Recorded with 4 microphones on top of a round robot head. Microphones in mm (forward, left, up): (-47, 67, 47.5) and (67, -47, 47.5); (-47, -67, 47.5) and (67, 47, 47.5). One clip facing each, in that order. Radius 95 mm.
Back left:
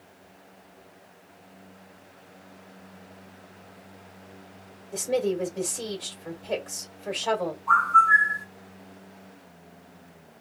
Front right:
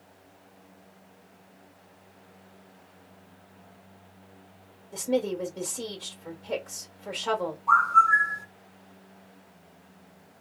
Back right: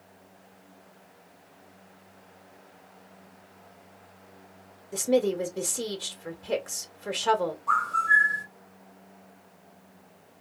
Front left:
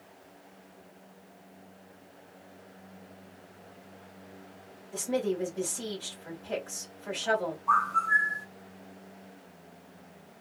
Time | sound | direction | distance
4.9 | a woman speaking | 140° right | 1.4 m
7.7 | a bird | 125° right | 1.9 m